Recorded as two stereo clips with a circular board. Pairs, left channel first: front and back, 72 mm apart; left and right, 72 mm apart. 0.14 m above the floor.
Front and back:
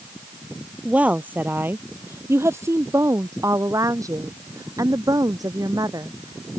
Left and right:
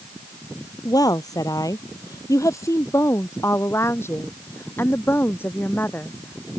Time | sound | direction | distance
0.8 | a woman speaking | 110° left | ?